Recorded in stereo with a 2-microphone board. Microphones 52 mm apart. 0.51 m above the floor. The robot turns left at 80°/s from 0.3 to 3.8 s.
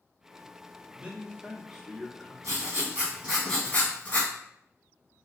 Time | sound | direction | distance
0.9 | a man speaking | 25° right (ahead or behind) | 0.8 m
2.4 | writing | 100° right | 1.4 m